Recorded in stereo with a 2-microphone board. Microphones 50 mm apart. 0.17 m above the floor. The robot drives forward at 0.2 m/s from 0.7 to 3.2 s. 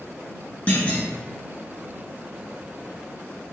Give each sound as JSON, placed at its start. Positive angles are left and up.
{"t": 0.7, "sound": "a clunk", "side_deg": 30, "distance_m": 1.1}